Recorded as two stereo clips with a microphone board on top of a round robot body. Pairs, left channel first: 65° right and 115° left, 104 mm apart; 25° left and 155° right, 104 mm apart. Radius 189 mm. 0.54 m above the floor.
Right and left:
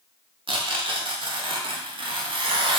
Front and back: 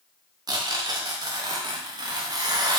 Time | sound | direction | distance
0.5 | tearing paper | 150° left | 0.6 m